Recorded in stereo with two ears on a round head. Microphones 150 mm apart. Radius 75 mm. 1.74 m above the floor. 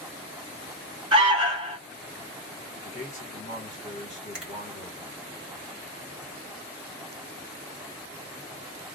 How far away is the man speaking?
About 1.8 m.